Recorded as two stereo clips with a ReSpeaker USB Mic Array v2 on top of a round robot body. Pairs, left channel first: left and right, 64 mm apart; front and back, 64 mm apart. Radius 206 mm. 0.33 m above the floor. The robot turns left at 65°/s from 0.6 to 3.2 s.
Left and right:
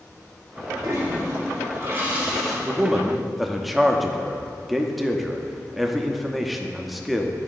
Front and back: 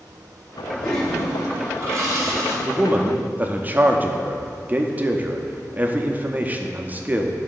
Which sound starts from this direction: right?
A toilet flushing, at 0.8 s.